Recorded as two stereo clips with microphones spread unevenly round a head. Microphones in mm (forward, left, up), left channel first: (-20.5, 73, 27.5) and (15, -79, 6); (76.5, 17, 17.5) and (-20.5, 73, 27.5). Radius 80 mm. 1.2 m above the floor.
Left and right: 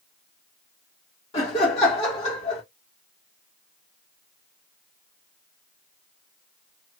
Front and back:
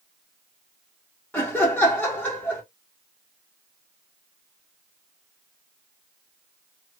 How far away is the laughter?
About 1.5 m.